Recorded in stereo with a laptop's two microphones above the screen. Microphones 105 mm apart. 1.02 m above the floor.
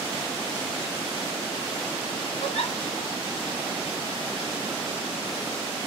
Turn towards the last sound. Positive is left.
turn(degrees=75)  # may be behind; listen again after turning